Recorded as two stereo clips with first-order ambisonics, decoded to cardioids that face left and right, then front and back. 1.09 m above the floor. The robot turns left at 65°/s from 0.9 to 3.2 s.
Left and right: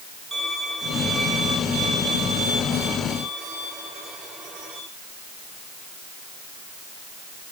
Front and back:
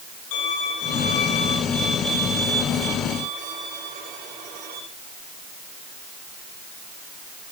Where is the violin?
Straight ahead, 4 m; by 4.8 s 150° right, 4 m.